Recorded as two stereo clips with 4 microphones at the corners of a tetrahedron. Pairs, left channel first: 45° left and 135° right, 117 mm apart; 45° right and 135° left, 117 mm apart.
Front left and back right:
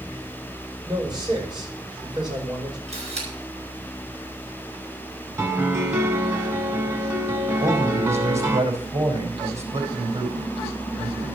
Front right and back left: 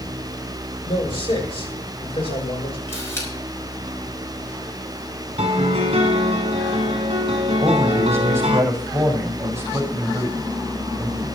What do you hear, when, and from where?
0.8 s a man speaking: 85° right, 5.5 m
2.9 s a camera shutter: 115° right, 5.5 m
5.4 s a piano: 160° left, 1.3 m
7.6 s a man speaking: 160° right, 5 m